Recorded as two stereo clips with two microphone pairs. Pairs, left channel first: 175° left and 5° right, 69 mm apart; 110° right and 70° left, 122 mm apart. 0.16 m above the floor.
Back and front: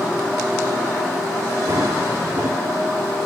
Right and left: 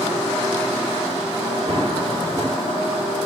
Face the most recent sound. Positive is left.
turn(degrees=40)